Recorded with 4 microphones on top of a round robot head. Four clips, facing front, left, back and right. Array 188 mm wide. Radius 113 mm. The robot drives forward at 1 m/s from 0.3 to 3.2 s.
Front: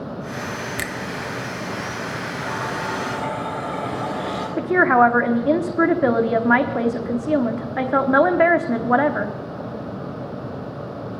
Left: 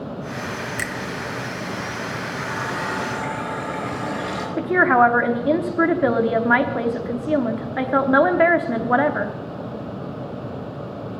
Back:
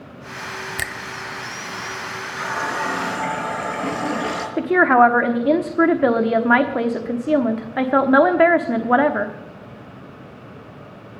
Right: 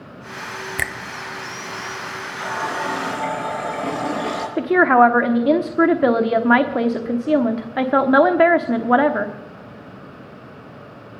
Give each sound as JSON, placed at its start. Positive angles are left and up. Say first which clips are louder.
{"t": 0.8, "sound": "a finger snap", "louder": "right 2 dB, front 1 dB", "azimuth_deg": -105, "distance_m": 0.7}
{"t": 2.4, "sound": "a running tap", "louder": "right 5 dB, back 4 dB", "azimuth_deg": -145, "distance_m": 4.0}
{"t": 4.6, "sound": "a woman speaking", "louder": "right 3 dB, back 2 dB", "azimuth_deg": -115, "distance_m": 1.1}